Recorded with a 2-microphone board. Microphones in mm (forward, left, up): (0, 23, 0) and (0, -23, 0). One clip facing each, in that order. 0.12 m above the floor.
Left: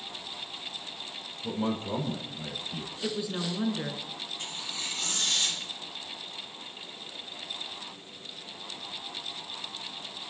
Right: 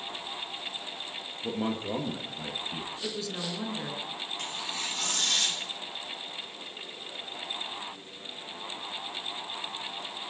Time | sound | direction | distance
1.4 | a man speaking | 30° right (ahead or behind) | 2.5 m
3.0 | a woman speaking | 15° left (ahead or behind) | 1.0 m
4.4 | tearing paper | 70° right (ahead or behind) | 3.5 m